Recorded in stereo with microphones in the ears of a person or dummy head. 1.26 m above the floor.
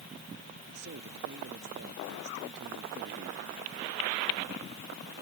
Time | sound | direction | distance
0.7 | a man speaking | 60° right (ahead or behind) | ?